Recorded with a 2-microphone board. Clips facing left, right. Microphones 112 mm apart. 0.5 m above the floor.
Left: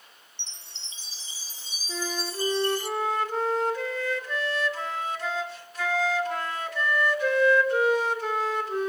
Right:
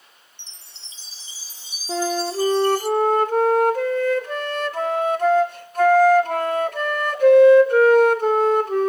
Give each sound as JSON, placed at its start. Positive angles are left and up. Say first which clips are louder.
{"t": 0.4, "sound": "a chime", "louder": "left 3 dB", "side_deg": -10, "distance_m": 2.0}
{"t": 1.9, "sound": "a flute", "louder": "right 10 dB", "side_deg": -45, "distance_m": 1.0}